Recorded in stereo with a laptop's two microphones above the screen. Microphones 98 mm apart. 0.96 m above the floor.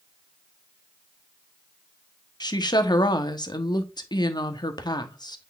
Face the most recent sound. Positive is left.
turn(degrees=50)  # may be behind; listen again after turning